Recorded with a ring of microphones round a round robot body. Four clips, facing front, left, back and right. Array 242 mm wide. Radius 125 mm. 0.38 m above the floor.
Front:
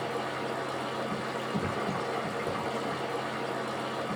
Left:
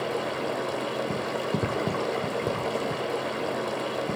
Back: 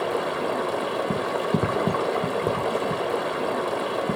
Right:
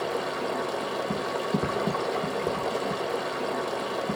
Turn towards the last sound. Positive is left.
turn(degrees=165)